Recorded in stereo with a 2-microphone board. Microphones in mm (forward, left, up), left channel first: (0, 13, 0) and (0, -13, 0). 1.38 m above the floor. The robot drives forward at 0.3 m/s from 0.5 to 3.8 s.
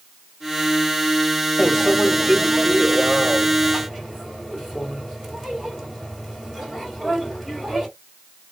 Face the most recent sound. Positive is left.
turn(degrees=5)  # may be behind; listen again after turning